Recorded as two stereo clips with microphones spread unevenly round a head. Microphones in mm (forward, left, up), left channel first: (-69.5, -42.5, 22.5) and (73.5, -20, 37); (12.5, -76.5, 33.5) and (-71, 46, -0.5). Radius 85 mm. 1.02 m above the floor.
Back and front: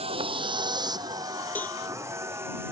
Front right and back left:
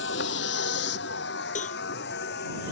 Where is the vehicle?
40° right; by 2.7 s 65° right.